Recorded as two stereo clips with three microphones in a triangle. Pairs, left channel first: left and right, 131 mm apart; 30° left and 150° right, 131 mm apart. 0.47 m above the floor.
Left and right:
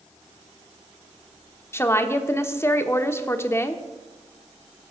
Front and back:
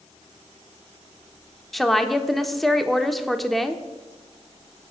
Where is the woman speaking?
115° left, 0.8 m.